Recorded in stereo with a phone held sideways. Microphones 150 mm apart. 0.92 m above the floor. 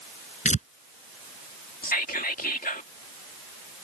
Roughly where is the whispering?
Left.